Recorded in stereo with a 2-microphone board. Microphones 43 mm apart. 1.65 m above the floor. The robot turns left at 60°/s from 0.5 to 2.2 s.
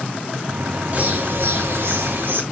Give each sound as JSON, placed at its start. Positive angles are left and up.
{"t": 0.9, "sound": "a bird", "azimuth_deg": -45, "distance_m": 2.0}